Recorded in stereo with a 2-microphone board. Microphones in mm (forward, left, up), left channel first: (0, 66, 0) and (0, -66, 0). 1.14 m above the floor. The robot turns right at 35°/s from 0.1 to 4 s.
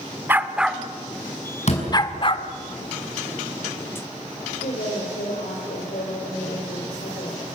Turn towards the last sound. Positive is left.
turn(degrees=80)